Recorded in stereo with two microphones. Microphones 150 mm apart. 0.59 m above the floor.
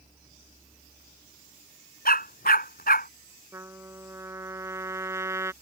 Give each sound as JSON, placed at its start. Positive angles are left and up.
{"t": 2.0, "sound": "a dog barking", "side_deg": 70}
{"t": 3.5, "sound": "a trumpet", "side_deg": -15}